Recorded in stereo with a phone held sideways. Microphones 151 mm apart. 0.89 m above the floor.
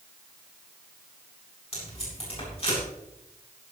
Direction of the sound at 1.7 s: 40° left (ahead or behind).